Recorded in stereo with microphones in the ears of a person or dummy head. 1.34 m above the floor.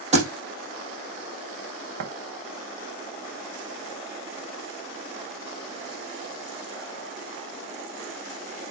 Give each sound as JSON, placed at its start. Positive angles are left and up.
{"t": 0.1, "sound": "a thud", "side_deg": -45, "distance_m": 3.5}
{"t": 2.0, "sound": "tapping", "side_deg": -80, "distance_m": 3.0}